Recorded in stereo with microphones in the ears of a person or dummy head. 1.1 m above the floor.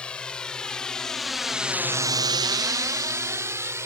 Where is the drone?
10° left (ahead or behind); by 3.9 s 15° right (ahead or behind).